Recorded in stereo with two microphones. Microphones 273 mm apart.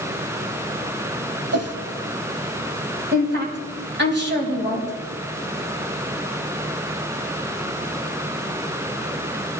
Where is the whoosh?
60° right (ahead or behind), 1.1 m.